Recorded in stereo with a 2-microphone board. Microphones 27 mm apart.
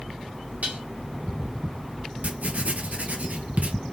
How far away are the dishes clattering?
About 1.9 m.